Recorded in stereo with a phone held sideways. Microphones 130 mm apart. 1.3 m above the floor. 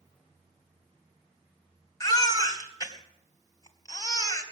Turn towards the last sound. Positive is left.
turn(degrees=30)  # may be behind; listen again after turning